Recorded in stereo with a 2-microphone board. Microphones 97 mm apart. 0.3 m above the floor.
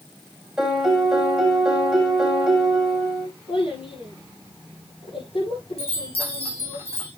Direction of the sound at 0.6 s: 5° right (ahead or behind).